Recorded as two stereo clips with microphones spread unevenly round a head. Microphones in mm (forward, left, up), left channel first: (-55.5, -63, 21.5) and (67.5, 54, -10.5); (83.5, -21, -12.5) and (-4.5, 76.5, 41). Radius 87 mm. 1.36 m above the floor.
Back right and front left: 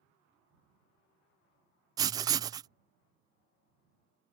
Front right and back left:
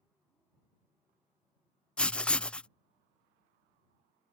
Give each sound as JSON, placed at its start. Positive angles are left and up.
{"t": 2.0, "sound": "writing", "azimuth_deg": 0}